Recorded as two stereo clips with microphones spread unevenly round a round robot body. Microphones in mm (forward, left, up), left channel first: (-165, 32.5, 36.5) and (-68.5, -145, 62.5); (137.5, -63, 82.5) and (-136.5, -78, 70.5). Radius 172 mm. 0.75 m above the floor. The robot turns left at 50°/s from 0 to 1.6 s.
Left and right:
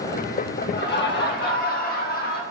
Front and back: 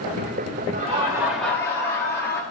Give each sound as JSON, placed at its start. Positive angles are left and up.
{"t": 0.7, "sound": "laughter", "azimuth_deg": 125, "distance_m": 1.6}